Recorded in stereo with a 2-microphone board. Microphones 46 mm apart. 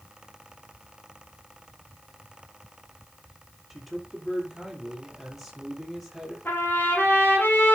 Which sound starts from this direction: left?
A trumpet, at 6.5 s.